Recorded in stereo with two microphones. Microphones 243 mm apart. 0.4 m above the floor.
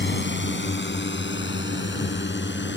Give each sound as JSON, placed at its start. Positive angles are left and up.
{"t": 0.0, "sound": "a drone", "side_deg": 45}